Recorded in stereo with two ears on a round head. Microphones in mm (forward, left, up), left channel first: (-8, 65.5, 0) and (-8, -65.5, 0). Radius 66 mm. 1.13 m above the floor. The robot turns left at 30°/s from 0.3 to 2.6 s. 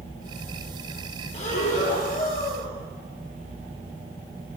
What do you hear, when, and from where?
1.3 s breathing: 130° left, 1.0 m; by 2.7 s 95° left, 1.0 m